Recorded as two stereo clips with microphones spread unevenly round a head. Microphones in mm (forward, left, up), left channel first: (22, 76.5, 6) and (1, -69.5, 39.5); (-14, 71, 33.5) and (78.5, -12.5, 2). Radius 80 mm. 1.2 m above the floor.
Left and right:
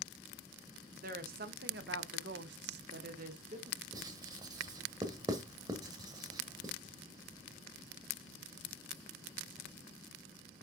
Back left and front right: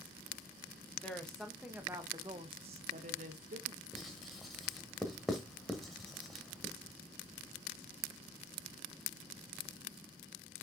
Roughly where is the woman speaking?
Behind right.